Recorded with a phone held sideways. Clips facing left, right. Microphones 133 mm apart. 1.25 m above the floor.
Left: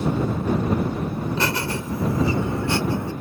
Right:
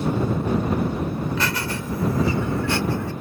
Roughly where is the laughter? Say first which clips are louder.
Left 1 dB; left.